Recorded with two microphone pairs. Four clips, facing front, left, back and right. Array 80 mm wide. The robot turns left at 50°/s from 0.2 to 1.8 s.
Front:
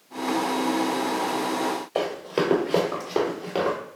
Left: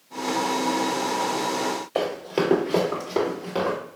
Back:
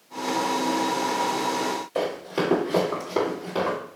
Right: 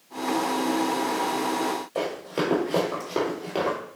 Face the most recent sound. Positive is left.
turn(degrees=-35)